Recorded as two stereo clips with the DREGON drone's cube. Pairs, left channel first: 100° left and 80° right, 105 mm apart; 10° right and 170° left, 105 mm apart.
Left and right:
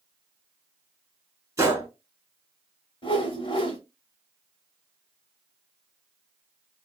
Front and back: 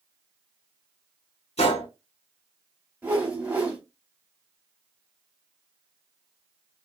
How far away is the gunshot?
About 1.0 m.